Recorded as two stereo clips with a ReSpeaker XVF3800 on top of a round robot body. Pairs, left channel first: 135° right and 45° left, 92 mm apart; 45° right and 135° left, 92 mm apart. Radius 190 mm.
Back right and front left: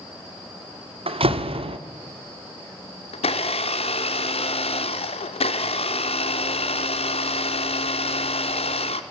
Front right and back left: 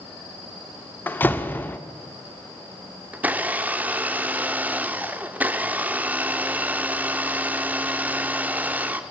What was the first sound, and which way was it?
A door slam, 25° left.